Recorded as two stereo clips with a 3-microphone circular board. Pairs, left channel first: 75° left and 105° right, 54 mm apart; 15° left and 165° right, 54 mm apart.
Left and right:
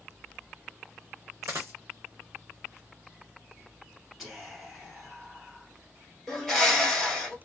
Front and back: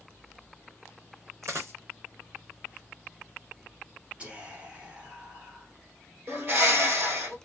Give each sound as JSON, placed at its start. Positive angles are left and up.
{"t": 1.4, "sound": "a dropped coin", "azimuth_deg": -140, "distance_m": 1.1}
{"t": 4.2, "sound": "whispering", "azimuth_deg": 175, "distance_m": 1.6}
{"t": 6.3, "sound": "a bird", "azimuth_deg": 160, "distance_m": 1.6}